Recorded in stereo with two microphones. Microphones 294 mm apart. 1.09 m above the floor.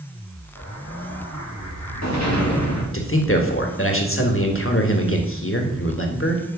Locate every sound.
0.6 s an explosion: 65° left (ahead or behind), 2.5 m
2.9 s a man speaking: 45° left (ahead or behind), 1.9 m